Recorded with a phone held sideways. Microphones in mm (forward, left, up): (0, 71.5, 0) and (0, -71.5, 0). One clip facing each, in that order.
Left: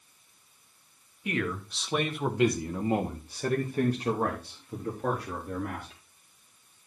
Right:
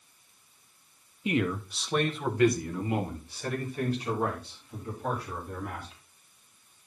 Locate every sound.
1.2 s a man speaking: 25° right (ahead or behind), 1.3 m; by 5.9 s 60° left (ahead or behind), 4 m